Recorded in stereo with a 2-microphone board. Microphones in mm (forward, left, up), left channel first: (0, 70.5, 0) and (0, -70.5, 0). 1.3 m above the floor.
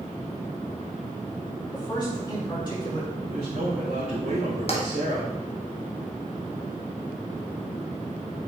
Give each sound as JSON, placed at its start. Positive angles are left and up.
{"t": 1.7, "sound": "a man speaking", "side_deg": 30, "distance_m": 3.5}
{"t": 3.2, "sound": "a man speaking", "side_deg": -85, "distance_m": 2.5}
{"t": 4.7, "sound": "tapping", "side_deg": 45, "distance_m": 1.3}